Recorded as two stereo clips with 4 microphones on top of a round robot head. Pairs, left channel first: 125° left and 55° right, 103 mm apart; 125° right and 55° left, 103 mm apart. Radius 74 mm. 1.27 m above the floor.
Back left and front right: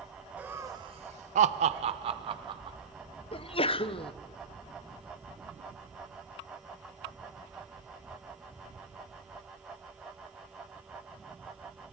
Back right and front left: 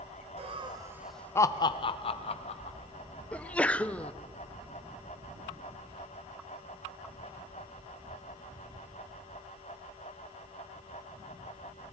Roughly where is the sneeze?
Behind left.